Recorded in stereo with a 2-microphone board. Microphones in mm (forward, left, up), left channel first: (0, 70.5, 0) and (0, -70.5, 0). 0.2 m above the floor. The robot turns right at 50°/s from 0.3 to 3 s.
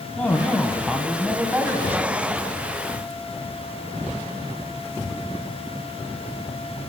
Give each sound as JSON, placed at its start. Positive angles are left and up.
{"t": 0.2, "sound": "a man speaking", "side_deg": 10, "distance_m": 1.0}